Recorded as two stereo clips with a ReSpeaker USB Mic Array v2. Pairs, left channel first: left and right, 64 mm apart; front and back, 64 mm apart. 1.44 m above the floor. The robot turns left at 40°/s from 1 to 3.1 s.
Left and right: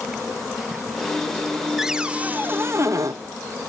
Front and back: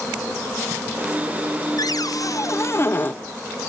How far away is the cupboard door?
About 0.7 m.